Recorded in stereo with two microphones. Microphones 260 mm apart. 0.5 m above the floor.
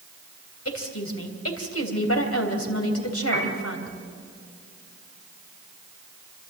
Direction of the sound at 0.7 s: 65° left (ahead or behind).